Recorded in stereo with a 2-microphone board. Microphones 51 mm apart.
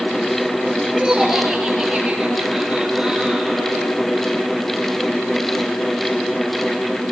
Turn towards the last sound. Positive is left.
turn(degrees=-15)  # may be behind; listen again after turning